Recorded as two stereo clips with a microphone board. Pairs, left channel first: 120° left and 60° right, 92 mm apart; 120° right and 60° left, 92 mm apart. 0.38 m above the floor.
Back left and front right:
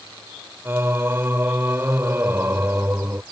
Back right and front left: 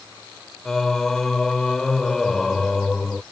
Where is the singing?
40° right.